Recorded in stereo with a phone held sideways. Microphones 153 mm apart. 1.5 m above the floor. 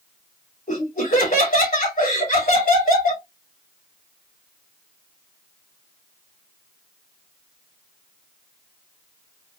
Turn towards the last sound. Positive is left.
turn(degrees=65)  # may be behind; listen again after turning